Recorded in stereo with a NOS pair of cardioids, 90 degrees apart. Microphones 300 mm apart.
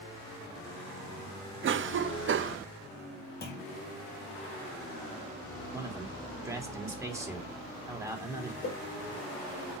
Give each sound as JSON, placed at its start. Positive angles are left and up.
{"t": 1.6, "sound": "a cough", "azimuth_deg": -45, "distance_m": 0.7}
{"t": 3.4, "sound": "a clunk", "azimuth_deg": 35, "distance_m": 1.6}
{"t": 5.7, "sound": "a man speaking", "azimuth_deg": -10, "distance_m": 2.5}
{"t": 8.6, "sound": "a whoosh", "azimuth_deg": 40, "distance_m": 3.0}